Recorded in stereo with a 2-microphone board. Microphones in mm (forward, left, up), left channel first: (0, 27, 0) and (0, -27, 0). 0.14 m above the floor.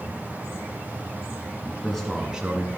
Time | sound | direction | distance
1.6 | a man speaking | 10° left (ahead or behind) | 1.7 m